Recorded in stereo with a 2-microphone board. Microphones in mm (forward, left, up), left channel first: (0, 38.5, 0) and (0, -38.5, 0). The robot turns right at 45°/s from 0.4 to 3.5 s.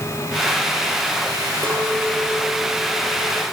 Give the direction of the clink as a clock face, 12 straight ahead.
2 o'clock.